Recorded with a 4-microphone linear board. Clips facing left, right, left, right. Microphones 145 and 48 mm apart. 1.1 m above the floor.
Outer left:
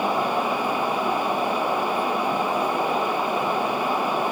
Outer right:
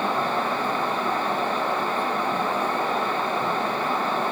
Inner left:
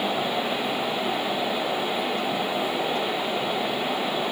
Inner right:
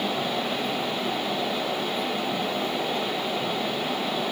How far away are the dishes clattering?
I don't hear dishes clattering.